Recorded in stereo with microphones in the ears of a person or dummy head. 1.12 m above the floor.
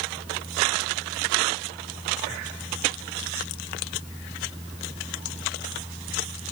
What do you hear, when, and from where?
0.0 s a fan: 10° right (ahead or behind)